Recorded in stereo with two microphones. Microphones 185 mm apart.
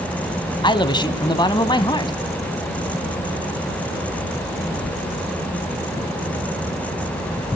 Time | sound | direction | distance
0.6 | a man speaking | 25° left (ahead or behind) | 1.0 m